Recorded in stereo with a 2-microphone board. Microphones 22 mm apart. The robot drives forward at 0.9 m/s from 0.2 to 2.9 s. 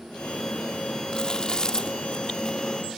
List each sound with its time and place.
1.1 s chewing: 40° left (ahead or behind); by 2.8 s 25° left (ahead or behind)